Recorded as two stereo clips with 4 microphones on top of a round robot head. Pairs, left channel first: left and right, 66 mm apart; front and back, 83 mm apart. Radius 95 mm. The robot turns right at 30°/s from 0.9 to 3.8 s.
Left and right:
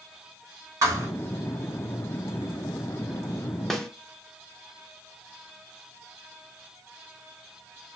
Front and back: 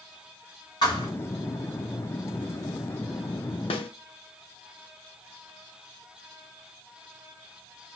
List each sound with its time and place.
0.8 s a thud: 50° right, 1.3 m; by 1.1 s 45° right, 1.3 m
3.7 s a snare drum: 5° left, 0.7 m; by 3.9 s 10° left, 0.7 m